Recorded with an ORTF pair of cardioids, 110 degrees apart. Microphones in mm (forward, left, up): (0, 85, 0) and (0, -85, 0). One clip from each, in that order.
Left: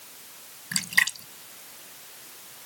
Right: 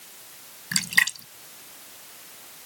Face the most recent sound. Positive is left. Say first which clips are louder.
# right 2 dB
turn(degrees=-15)